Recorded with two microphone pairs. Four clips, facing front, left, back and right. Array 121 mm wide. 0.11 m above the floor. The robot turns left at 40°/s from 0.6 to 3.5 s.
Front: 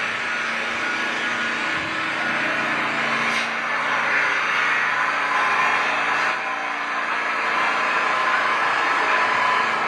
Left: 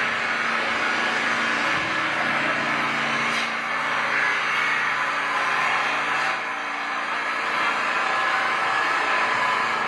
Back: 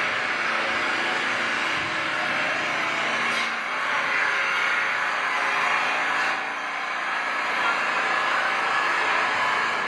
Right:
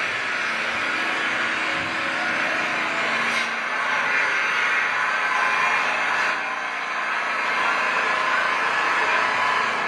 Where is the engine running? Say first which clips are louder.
Left 2 dB, even; 125° left, 1.2 m; by 9.9 s 10° left, 1.2 m.